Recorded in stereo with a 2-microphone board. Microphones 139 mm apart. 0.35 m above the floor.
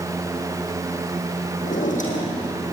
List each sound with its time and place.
1.6 s a drawer: 65° left (ahead or behind), 4.5 m